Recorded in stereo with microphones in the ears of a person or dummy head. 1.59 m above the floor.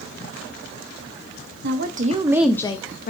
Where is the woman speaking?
50° right (ahead or behind), 1.0 m; by 3.1 s 50° left (ahead or behind), 0.9 m.